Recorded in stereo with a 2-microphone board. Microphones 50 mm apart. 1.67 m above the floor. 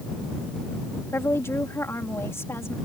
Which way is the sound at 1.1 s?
65° left (ahead or behind).